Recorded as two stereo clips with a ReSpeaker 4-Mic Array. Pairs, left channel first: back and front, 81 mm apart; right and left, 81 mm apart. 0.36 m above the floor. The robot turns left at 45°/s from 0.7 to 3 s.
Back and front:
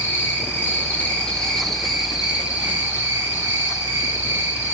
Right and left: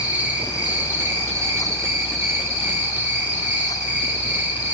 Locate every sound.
0.0 s an insect: 140° left, 1.2 m; by 4.7 s 40° left, 1.2 m